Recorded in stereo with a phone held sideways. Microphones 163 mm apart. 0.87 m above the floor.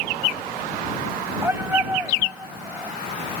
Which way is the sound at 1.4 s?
15° right (ahead or behind).